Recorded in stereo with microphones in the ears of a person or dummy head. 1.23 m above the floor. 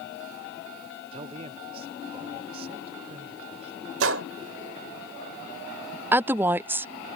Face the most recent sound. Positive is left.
turn(degrees=-10)  # may be behind; listen again after turning